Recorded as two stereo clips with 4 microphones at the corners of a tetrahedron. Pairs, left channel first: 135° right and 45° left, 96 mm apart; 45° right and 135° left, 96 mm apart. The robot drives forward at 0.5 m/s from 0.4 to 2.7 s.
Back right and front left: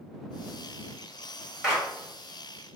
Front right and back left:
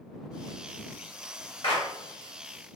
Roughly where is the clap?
Ahead right.